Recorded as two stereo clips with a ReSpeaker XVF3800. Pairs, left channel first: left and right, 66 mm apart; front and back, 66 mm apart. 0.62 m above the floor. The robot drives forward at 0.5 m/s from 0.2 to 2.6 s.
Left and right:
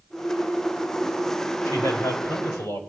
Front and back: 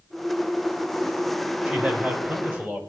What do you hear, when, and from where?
1.6 s a man speaking: 110° left, 3 m; by 2.8 s 115° left, 3 m